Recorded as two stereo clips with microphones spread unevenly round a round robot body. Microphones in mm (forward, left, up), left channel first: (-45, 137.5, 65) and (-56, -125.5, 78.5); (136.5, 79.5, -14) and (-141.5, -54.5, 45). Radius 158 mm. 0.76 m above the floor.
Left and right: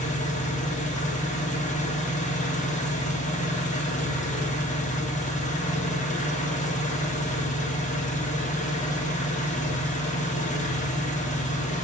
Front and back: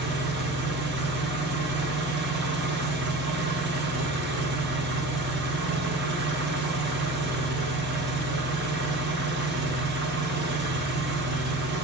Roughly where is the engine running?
Behind left.